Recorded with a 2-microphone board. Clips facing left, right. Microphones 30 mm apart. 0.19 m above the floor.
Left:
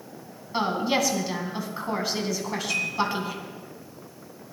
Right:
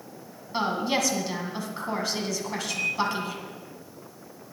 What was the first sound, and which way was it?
A woman speaking, 5° left (ahead or behind).